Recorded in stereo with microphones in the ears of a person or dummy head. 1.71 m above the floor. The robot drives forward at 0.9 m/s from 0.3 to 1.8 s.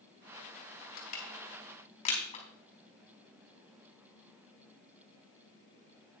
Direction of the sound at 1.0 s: 45° left (ahead or behind).